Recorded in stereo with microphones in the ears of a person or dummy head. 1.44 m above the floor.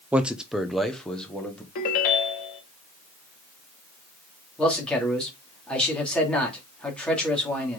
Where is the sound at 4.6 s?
10° left (ahead or behind), 2.5 m.